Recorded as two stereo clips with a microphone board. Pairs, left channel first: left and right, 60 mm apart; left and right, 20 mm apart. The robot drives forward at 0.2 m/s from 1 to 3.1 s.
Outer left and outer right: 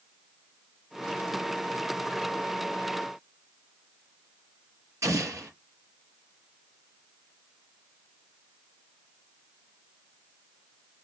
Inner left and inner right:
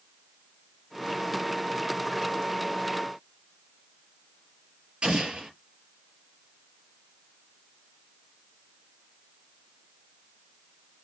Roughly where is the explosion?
Right.